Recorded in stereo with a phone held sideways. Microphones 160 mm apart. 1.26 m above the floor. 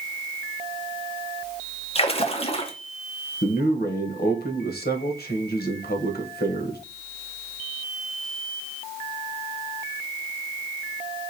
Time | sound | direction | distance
1.9 | a splash | 35° left (ahead or behind) | 0.7 m
3.4 | a man speaking | 80° left | 0.9 m